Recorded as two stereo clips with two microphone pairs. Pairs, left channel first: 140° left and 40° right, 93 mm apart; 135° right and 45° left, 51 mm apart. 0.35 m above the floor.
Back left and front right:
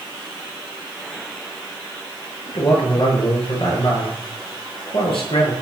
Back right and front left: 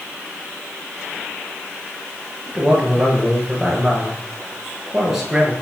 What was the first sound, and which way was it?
A man speaking, 130° left.